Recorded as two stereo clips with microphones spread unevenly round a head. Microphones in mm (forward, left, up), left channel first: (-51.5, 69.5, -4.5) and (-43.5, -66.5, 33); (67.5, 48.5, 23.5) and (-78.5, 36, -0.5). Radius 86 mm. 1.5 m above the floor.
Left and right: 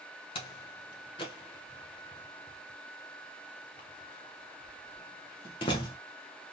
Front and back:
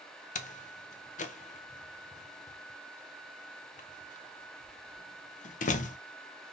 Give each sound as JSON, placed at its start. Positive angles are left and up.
{"t": 0.3, "sound": "a door slam", "azimuth_deg": 25, "distance_m": 0.5}